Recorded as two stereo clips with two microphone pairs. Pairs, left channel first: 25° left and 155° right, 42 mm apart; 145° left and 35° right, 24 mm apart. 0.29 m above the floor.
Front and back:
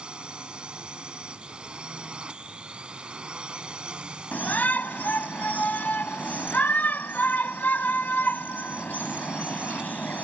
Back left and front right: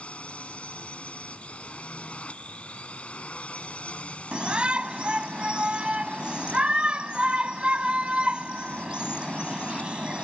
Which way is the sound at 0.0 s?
145° left.